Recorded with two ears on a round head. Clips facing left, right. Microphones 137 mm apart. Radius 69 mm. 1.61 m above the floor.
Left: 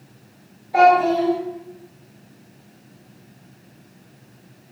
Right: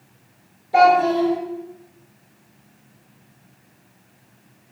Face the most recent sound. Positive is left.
turn(degrees=-55)  # may be behind; listen again after turning